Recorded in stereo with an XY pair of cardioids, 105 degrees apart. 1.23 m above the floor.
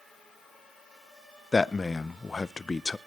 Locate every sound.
1.5 s a man speaking: 20° left, 0.5 m